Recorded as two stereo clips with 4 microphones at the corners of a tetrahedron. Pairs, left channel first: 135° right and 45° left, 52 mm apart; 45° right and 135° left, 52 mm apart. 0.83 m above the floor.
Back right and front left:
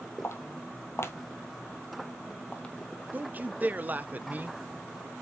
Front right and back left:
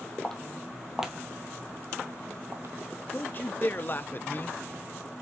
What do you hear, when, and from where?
0.2 s footsteps: 120° right, 1.7 m; by 2.8 s 155° left, 1.6 m
3.1 s a man speaking: 5° right, 0.6 m